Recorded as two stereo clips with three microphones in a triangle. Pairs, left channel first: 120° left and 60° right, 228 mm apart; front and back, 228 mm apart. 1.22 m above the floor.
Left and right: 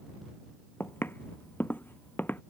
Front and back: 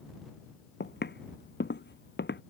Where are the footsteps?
40° left.